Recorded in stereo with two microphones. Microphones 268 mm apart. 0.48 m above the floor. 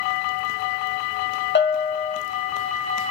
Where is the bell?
40° left (ahead or behind), 0.6 m.